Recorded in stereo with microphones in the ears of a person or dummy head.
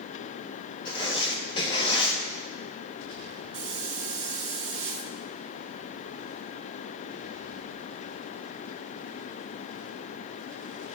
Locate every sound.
0.8 s writing: 30° left (ahead or behind), 1.2 m
3.5 s a hiss: 35° right (ahead or behind), 1.8 m